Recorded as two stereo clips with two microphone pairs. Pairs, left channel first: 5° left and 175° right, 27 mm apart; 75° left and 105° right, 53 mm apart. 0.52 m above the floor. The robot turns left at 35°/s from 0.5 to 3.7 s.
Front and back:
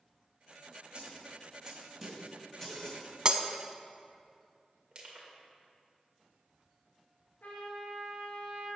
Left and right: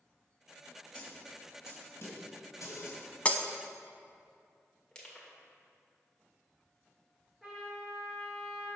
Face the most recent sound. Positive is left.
turn(degrees=-15)